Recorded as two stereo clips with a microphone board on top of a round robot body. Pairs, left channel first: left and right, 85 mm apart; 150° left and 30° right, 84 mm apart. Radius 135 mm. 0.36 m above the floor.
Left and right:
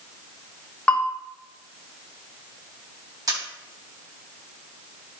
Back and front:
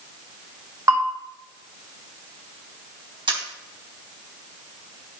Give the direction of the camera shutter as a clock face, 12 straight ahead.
2 o'clock.